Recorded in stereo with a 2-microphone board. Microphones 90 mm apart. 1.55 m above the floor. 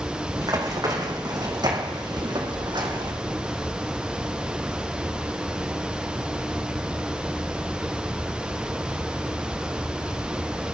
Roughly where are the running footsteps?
Right.